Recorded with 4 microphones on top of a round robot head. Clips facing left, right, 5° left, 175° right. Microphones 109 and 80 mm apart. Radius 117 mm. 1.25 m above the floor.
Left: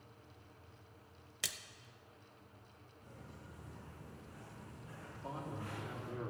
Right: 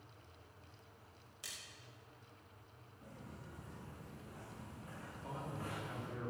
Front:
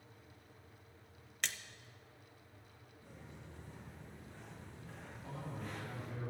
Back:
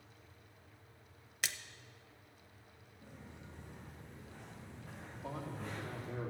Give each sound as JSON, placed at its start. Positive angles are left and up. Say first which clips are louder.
{"t": 1.4, "sound": "a splash", "louder": "left 8 dB, back 1 dB", "azimuth_deg": 100, "distance_m": 0.5}
{"t": 3.0, "sound": "footsteps", "louder": "right 2 dB, back 1 dB", "azimuth_deg": -135, "distance_m": 6.5}
{"t": 5.1, "sound": "a man speaking", "louder": "left 2 dB, back 4 dB", "azimuth_deg": 150, "distance_m": 4.0}